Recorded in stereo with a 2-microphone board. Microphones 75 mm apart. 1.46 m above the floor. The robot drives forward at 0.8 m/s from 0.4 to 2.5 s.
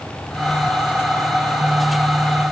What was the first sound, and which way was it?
Only background noise.